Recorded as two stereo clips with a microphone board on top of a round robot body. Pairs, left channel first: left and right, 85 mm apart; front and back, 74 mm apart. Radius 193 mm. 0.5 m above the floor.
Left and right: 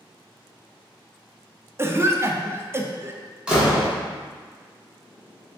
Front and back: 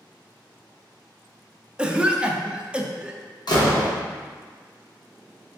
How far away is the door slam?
About 1.5 m.